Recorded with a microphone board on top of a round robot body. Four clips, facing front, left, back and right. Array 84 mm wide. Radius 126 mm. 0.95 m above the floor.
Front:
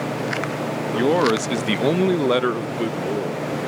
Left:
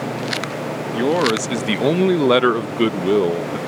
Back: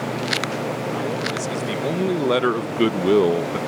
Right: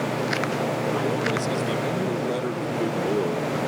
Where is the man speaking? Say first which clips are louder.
Left 6 dB, front 7 dB; 40° left; by 3.6 s 155° left.